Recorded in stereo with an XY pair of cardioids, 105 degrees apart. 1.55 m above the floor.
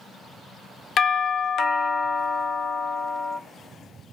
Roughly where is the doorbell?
Ahead left.